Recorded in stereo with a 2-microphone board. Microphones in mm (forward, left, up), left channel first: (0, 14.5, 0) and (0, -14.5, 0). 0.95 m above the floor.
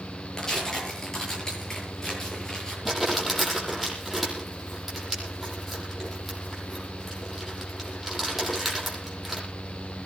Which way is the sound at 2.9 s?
5° right (ahead or behind).